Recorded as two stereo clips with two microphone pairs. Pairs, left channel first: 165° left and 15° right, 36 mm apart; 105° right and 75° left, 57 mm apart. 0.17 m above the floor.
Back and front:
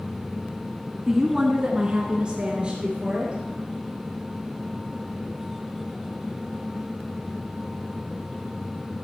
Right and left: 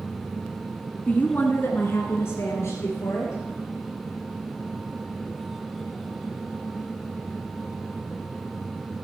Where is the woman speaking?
85° right, 1.1 m; by 3.3 s 80° right, 3 m.